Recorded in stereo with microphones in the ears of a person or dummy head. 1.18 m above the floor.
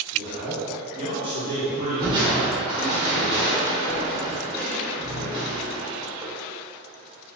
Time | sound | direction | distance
0.1 | a man speaking | 30° right (ahead or behind) | 1.2 m
2.0 | crushing | 25° right (ahead or behind) | 1.8 m